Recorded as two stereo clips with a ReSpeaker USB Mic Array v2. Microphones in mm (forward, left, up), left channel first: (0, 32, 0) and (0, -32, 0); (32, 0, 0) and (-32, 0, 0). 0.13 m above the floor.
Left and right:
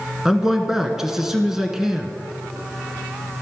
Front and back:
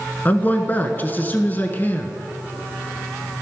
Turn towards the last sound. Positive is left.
turn(degrees=-10)